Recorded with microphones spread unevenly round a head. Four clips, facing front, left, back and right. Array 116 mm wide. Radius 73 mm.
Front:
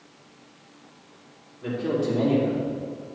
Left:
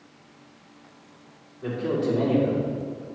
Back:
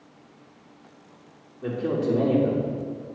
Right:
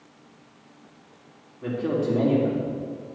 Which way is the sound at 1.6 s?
115° right.